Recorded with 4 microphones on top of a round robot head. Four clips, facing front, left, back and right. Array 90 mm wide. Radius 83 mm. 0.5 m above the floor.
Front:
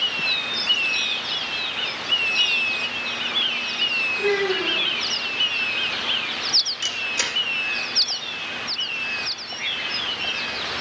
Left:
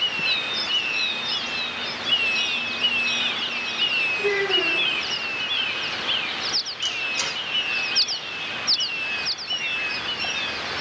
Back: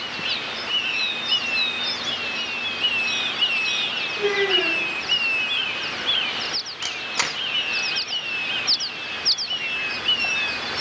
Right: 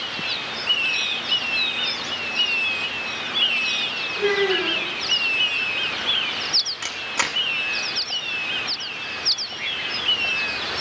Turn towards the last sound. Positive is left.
turn(degrees=-125)